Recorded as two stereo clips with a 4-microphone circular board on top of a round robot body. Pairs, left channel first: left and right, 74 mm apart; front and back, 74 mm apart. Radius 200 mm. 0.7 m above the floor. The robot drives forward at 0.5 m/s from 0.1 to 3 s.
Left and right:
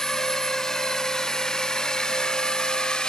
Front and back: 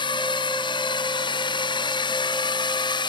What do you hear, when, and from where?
0.0 s a drone: 5° left; by 3.1 s 10° left